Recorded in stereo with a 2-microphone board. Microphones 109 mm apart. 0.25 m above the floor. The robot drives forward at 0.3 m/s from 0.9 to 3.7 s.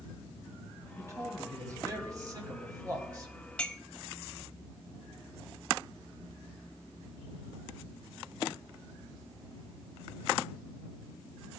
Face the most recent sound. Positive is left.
turn(degrees=10)  # may be behind; listen again after turning